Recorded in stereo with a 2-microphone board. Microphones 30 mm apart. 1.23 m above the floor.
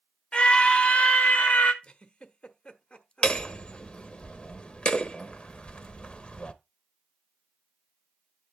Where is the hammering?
35° left (ahead or behind), 1.1 m.